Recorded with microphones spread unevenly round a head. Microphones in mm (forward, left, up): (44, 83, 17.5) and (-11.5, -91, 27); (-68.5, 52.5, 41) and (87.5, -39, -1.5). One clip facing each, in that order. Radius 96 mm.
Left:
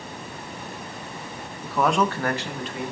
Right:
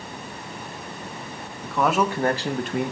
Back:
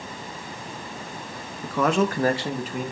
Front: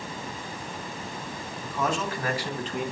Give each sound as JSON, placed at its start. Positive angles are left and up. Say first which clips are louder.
{"t": 1.6, "sound": "a man speaking", "louder": "even, back 7 dB", "azimuth_deg": 150, "distance_m": 1.1}